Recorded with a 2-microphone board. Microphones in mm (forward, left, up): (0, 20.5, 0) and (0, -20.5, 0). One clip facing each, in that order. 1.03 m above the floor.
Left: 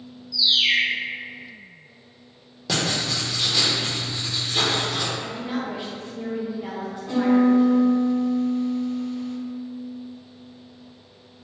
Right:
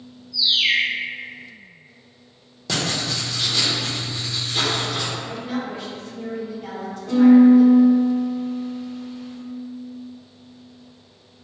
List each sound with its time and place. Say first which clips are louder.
0.3 s a bird: right 1 dB; 35° right (ahead or behind), 1.5 m
2.7 s writing: even; 5° left (ahead or behind), 0.7 m
5.2 s a woman speaking: right 1 dB; 15° left (ahead or behind), 0.7 m
7.1 s a piano: right 7 dB; 10° right (ahead or behind), 0.9 m